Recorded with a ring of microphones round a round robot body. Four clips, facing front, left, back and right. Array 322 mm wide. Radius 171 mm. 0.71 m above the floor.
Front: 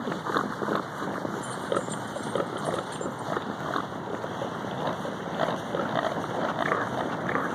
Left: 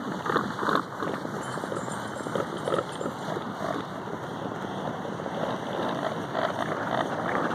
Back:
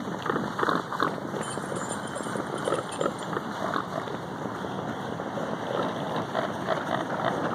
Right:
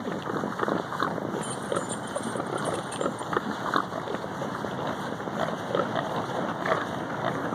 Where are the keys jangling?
130° right, 1.2 m.